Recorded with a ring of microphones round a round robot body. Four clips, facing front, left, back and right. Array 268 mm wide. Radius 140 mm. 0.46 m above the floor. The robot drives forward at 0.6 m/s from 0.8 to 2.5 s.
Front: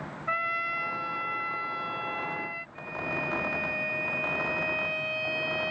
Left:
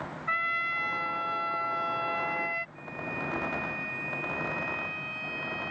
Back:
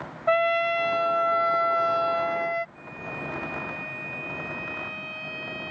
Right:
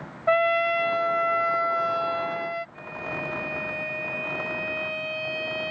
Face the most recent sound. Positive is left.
turn(degrees=-65)